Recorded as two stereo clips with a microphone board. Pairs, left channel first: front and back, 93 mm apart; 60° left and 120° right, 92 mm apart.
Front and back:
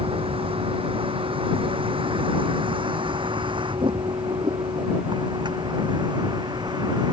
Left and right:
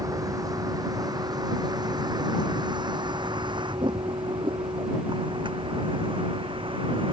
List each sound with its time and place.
0.0 s a vehicle: 170° right; by 7.1 s 140° right